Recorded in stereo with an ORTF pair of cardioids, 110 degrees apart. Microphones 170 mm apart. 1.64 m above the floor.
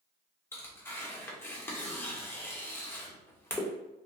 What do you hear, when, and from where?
0.5 s tearing paper: 15° left, 0.8 m